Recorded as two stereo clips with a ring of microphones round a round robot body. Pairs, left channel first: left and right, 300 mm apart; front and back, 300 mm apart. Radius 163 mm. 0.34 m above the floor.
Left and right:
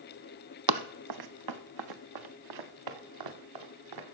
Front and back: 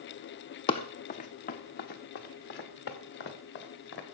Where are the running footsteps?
75° right, 0.7 m; by 4.0 s 60° right, 3 m.